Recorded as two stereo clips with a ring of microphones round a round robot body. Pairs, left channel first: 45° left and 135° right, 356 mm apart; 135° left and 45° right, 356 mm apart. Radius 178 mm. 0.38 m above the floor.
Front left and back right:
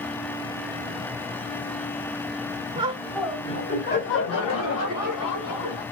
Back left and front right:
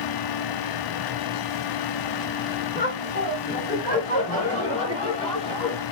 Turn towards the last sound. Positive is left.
turn(degrees=60)